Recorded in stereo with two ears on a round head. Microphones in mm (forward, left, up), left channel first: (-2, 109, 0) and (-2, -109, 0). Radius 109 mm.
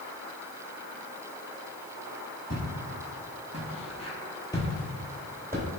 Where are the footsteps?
35° left (ahead or behind), 1.3 m; by 5.7 s 15° right (ahead or behind), 0.8 m.